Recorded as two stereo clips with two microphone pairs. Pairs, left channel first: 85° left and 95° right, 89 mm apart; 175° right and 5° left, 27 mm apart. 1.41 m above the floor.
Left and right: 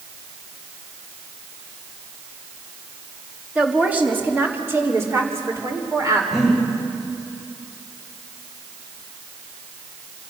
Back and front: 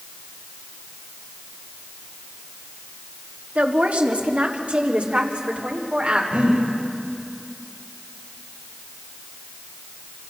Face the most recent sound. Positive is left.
turn(degrees=-5)